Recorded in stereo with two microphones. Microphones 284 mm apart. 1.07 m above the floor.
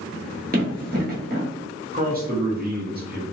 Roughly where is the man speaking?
Right.